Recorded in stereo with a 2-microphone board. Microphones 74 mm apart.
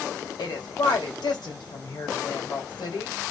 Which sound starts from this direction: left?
A woman speaking, at 0.4 s.